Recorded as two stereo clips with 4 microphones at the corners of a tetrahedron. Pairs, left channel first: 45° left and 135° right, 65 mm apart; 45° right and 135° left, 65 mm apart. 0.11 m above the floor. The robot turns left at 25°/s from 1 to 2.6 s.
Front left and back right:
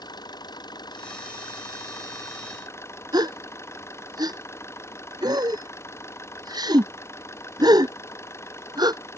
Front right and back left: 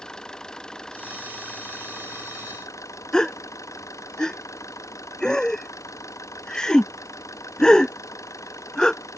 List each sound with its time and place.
0.0 s an engine running: 35° left; by 9.2 s 5° right
3.1 s a gasp: 125° right